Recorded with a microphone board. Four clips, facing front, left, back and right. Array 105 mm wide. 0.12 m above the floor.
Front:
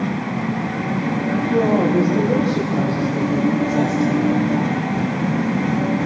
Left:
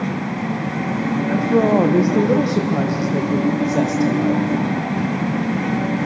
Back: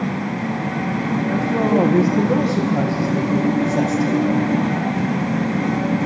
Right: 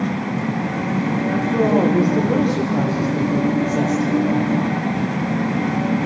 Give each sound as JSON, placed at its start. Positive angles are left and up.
{"t": 1.3, "sound": "a woman speaking", "azimuth_deg": 95, "distance_m": 6.5}